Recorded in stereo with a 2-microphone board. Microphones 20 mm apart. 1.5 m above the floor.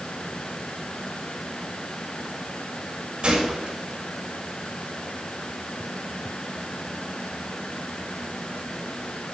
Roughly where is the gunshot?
Right.